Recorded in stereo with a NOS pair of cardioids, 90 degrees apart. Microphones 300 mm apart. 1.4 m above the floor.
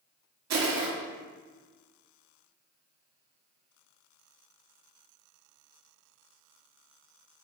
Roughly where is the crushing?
Ahead right.